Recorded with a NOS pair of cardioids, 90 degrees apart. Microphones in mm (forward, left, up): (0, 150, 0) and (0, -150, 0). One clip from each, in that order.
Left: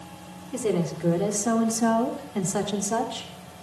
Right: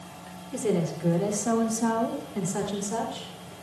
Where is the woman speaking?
15° left, 3 m; by 3.3 s 50° left, 3 m.